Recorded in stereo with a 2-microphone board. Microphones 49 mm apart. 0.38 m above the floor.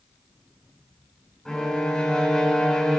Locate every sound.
1.4 s a violin: 10° left (ahead or behind), 3 m